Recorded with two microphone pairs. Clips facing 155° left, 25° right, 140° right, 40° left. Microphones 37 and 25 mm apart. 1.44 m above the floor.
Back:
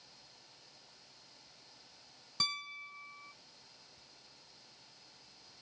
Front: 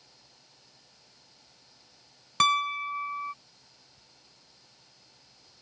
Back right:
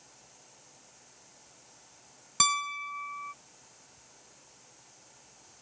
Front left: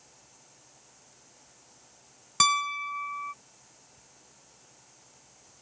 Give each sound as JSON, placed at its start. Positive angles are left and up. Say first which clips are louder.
{"t": 2.4, "sound": "a piano", "louder": "front 15 dB, front left 4 dB", "azimuth_deg": -25}